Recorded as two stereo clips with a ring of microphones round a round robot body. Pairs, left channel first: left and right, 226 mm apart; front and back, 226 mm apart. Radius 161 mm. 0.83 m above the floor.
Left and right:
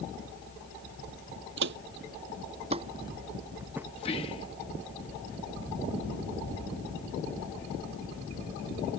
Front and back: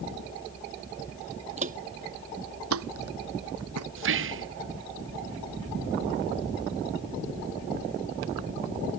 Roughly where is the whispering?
Behind.